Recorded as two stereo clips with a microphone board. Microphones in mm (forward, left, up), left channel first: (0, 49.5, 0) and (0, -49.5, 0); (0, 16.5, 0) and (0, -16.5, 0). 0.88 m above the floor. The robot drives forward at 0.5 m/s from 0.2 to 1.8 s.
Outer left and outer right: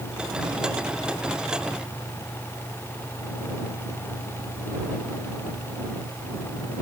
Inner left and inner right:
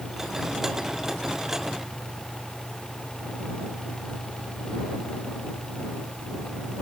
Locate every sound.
Only background noise.